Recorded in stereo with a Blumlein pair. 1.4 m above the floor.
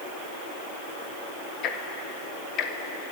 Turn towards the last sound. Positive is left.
turn(degrees=35)